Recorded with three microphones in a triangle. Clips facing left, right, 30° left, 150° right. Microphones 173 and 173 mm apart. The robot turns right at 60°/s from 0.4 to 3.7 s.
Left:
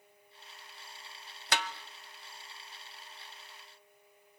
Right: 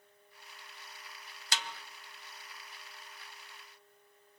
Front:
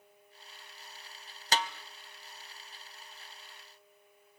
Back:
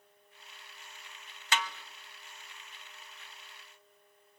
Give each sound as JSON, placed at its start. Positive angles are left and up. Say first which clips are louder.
{"t": 1.5, "sound": "a snare drum", "louder": "left 6 dB, front 2 dB", "azimuth_deg": 75, "distance_m": 0.8}